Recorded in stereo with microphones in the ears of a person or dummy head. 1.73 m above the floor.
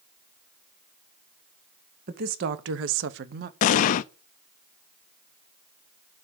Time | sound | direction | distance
2.1 | a woman speaking | 50° right (ahead or behind) | 1.3 m
3.6 | an explosion | 45° left (ahead or behind) | 0.5 m